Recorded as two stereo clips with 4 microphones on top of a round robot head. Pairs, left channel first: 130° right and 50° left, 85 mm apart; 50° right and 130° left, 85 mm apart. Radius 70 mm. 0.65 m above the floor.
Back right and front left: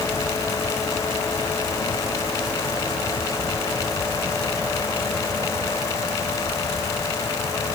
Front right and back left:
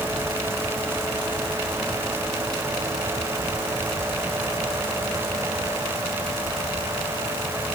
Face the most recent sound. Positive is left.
No sound to turn to.